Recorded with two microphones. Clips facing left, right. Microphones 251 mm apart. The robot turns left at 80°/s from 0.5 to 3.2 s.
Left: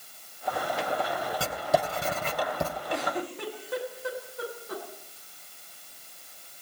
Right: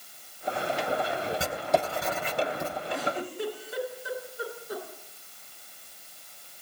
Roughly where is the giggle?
Left.